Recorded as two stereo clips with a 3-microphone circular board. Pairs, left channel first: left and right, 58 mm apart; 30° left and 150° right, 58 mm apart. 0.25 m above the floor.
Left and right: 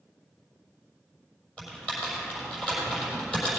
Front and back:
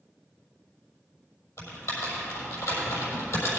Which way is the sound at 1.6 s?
20° left.